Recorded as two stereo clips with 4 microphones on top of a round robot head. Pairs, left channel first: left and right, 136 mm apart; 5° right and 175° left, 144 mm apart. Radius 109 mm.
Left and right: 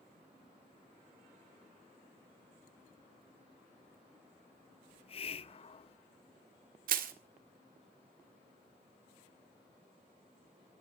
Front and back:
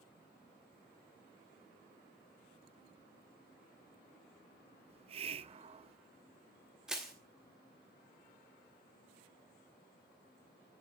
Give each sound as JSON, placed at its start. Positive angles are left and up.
{"t": 4.9, "sound": "a hiss", "azimuth_deg": 130, "distance_m": 0.7}
{"t": 6.9, "sound": "crushing", "azimuth_deg": -100, "distance_m": 1.6}